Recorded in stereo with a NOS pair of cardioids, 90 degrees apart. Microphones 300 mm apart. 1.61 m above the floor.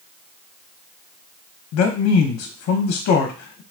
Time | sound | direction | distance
1.7 | a man speaking | 60° left | 0.6 m